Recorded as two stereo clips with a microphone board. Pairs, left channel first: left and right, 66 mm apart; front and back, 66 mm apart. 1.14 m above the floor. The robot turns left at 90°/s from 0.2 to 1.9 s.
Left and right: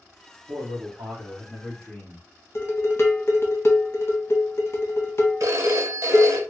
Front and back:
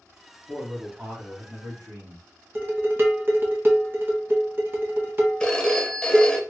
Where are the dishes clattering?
130° left, 0.7 m.